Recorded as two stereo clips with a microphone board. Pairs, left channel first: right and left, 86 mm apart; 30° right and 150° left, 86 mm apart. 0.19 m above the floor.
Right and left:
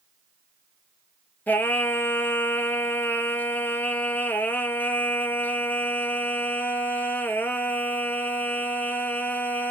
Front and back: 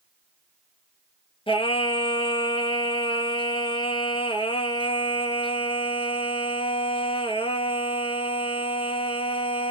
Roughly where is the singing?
Ahead.